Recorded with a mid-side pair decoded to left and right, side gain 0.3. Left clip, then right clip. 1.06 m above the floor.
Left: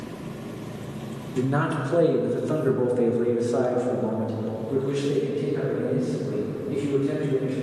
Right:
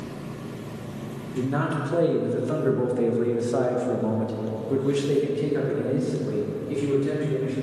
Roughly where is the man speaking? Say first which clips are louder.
Left 2 dB; ahead left.